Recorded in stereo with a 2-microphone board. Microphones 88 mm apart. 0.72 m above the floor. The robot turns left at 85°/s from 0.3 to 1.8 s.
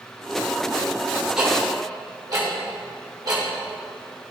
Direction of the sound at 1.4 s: 10° right (ahead or behind).